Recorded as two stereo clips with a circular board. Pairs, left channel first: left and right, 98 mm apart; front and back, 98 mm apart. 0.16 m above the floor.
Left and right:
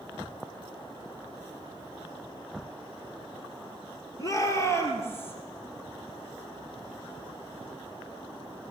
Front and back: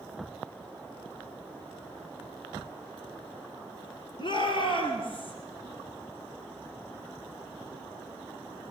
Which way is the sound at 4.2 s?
35° left.